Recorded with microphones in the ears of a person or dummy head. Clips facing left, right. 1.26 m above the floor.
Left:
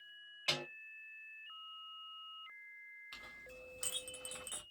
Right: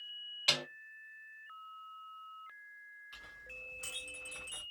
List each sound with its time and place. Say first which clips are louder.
0.5 s a snare drum: right 2 dB; centre (ahead or behind), 0.7 m
3.1 s a clink: left 3 dB; 65° left (ahead or behind), 1.1 m